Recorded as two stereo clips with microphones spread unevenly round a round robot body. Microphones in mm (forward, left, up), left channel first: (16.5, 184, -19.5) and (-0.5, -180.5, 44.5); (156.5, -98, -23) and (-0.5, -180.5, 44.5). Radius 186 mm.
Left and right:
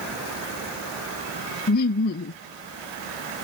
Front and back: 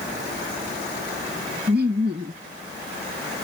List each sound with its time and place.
1.7 s laughter: 145° left